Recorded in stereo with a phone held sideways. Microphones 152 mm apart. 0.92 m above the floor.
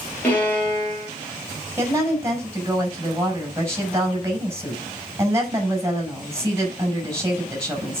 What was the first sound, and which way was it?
A violin, 15° left (ahead or behind).